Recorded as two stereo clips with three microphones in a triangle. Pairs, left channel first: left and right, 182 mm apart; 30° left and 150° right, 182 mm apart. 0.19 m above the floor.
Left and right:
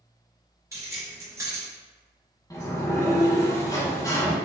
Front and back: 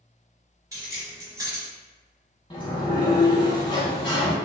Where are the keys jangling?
125° right, 0.9 m.